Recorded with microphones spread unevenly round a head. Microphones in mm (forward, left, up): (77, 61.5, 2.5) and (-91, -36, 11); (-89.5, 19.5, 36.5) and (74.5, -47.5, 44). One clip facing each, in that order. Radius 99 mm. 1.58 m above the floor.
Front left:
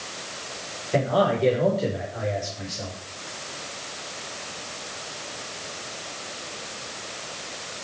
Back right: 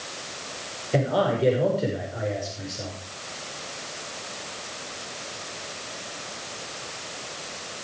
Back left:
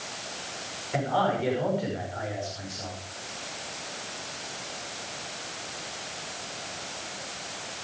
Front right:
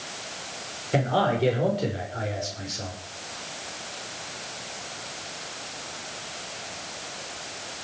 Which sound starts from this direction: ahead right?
A man speaking, at 0.9 s.